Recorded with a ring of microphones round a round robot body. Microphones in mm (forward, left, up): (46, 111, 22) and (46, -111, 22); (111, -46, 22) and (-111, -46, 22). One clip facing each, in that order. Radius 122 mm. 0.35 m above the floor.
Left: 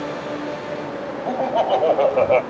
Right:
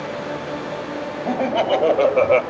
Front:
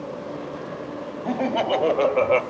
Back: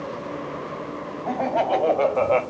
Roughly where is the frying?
I don't hear frying.